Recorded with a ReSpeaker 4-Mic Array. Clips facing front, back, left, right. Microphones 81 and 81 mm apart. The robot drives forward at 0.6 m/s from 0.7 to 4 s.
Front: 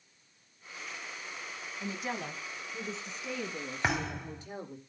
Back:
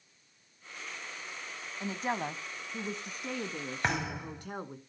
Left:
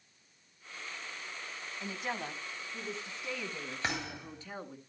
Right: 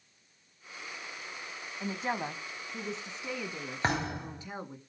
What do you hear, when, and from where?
1.8 s a woman speaking: 140° right, 1.3 m; by 4.8 s 165° right, 2.5 m
3.8 s a thud: 85° right, 0.7 m; by 4.5 s 95° right, 0.7 m